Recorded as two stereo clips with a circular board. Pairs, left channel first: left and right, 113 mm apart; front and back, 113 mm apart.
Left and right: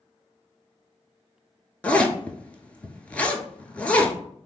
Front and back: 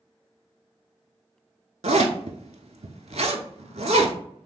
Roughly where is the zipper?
Behind.